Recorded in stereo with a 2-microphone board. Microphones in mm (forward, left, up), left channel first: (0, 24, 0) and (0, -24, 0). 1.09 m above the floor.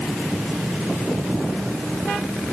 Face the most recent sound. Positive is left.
No sound to turn to.